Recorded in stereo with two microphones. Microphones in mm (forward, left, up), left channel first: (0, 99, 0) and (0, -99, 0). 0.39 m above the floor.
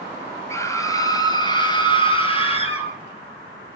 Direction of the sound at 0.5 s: 15° left (ahead or behind).